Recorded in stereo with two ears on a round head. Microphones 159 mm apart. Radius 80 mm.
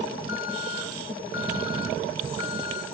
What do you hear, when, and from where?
0.3 s an alarm: 70° left (ahead or behind), 4.5 m